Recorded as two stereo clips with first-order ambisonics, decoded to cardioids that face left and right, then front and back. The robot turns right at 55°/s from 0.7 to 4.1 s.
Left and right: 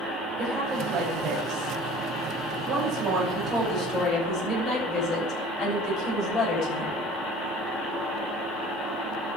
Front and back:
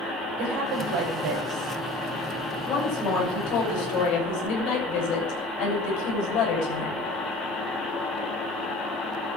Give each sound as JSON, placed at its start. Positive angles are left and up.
{"t": 0.4, "sound": "a woman speaking", "azimuth_deg": -170, "distance_m": 8.0}